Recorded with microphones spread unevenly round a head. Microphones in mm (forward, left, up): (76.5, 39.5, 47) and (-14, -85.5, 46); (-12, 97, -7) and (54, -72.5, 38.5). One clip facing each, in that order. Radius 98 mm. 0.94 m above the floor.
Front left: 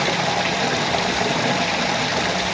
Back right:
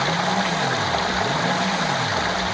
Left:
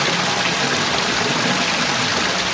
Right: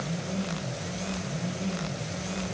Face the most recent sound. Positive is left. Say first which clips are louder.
# front left 1 dB, left 9 dB
turn(degrees=130)